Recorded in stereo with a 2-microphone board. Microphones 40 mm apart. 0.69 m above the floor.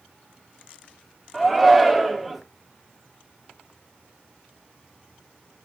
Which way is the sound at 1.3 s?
Centre (ahead or behind).